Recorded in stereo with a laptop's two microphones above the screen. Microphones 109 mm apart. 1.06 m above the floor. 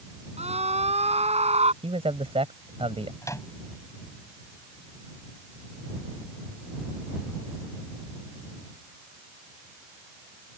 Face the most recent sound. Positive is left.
turn(degrees=30)  # may be behind; listen again after turning